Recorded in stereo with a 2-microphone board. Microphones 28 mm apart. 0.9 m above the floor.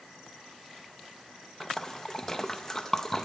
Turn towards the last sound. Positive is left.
turn(degrees=20)  # may be behind; listen again after turning